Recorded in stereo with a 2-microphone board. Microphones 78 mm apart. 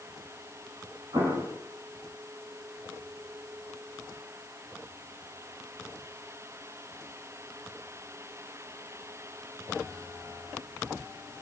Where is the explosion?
70° right (ahead or behind), 9 m.